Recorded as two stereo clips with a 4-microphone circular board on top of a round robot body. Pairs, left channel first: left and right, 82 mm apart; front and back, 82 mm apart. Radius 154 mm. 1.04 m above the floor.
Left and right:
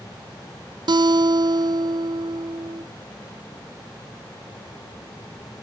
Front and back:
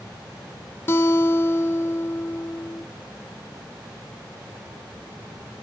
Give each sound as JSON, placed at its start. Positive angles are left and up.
{"t": 0.9, "sound": "a guitar", "azimuth_deg": -65, "distance_m": 0.6}